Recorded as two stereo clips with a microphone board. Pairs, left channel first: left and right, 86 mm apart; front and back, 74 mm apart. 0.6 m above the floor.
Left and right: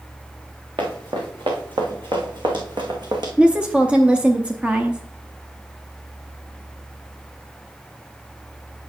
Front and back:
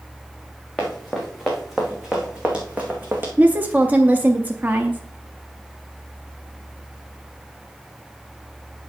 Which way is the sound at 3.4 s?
145° right.